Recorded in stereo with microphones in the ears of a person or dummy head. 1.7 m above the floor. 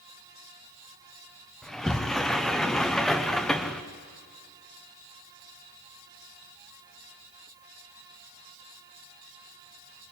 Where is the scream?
I don't hear a scream.